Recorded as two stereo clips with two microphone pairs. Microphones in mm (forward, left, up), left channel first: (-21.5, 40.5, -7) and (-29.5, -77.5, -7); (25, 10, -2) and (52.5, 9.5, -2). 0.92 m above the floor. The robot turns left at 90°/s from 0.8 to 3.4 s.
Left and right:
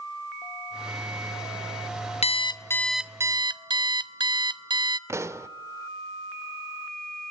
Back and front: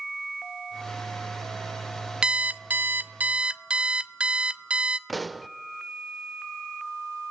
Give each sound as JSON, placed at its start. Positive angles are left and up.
{"t": 2.2, "sound": "an alarm clock", "azimuth_deg": 60, "distance_m": 0.6}
{"t": 5.1, "sound": "a pop", "azimuth_deg": -80, "distance_m": 0.6}